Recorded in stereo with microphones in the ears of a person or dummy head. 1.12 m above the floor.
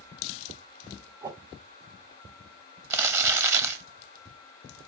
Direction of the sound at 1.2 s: 25° right (ahead or behind).